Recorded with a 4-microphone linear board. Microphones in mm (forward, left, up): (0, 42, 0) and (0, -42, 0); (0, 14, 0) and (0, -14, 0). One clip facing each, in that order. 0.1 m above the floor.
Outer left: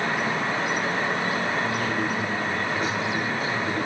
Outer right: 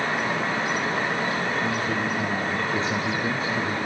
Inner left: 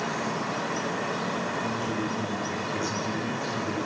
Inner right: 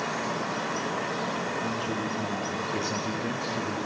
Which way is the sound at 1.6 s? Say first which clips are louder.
Even, inner left 1 dB; 25° right (ahead or behind).